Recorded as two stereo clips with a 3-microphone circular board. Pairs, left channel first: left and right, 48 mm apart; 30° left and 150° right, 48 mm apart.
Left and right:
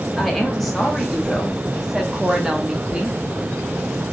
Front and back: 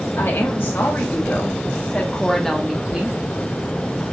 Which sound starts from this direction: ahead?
A woman speaking, at 0.2 s.